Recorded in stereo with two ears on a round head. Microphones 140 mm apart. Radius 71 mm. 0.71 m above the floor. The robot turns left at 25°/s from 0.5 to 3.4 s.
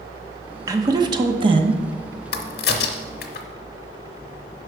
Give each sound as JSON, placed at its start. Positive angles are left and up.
{"t": 0.7, "sound": "a woman speaking", "side_deg": -20, "distance_m": 0.8}
{"t": 2.3, "sound": "a crack", "side_deg": 75, "distance_m": 0.9}